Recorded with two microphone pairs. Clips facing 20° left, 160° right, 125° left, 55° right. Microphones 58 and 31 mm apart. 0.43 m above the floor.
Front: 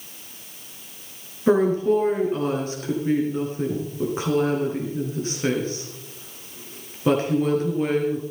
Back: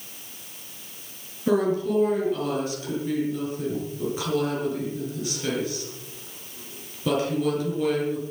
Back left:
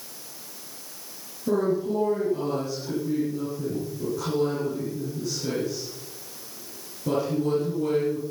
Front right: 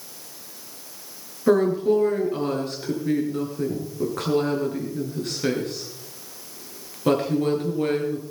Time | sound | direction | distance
1.5 | a woman speaking | 30° right | 6 m